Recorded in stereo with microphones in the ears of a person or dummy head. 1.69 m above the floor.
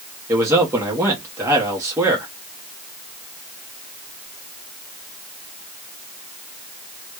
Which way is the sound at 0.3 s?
15° right (ahead or behind).